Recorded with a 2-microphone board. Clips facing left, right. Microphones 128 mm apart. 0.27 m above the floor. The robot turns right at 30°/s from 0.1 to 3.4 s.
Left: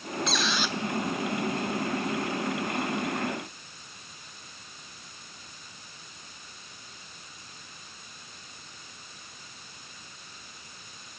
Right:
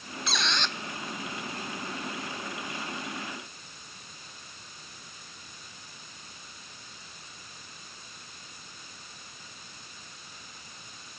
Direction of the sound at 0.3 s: Centre (ahead or behind).